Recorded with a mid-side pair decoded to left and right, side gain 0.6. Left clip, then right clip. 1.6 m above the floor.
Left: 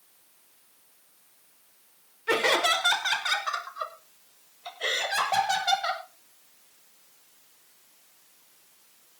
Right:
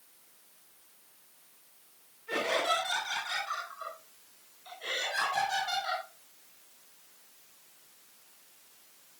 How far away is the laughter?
About 5.5 m.